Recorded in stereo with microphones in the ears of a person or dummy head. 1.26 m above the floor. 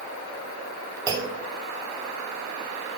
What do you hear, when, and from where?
1.1 s a clunk: 20° right (ahead or behind), 2 m